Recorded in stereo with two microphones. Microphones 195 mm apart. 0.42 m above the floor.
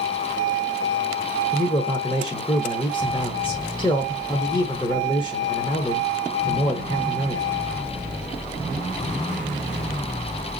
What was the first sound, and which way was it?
A man speaking, 25° left (ahead or behind).